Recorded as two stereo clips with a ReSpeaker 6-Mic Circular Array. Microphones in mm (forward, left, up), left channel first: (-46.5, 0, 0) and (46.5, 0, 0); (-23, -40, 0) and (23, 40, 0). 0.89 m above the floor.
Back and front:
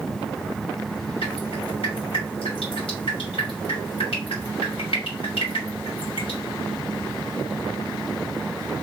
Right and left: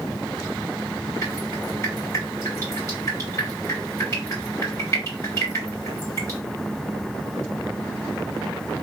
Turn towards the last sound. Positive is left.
turn(degrees=180)